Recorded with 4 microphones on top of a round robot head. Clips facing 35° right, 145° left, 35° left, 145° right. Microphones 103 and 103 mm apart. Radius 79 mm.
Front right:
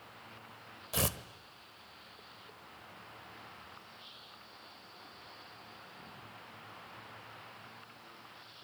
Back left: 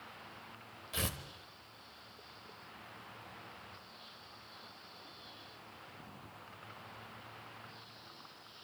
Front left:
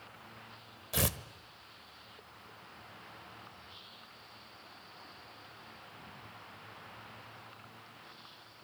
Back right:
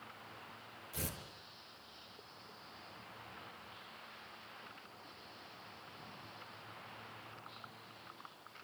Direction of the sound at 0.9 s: 20° left.